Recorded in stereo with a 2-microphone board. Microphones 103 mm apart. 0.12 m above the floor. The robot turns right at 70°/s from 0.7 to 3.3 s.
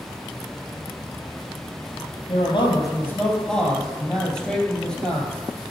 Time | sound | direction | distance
2.3 | a man speaking | 100° left | 3 m